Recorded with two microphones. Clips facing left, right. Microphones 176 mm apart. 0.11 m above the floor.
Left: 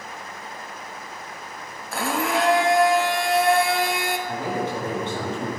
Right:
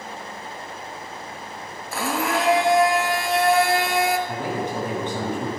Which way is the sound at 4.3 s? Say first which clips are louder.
Even; 15° right (ahead or behind).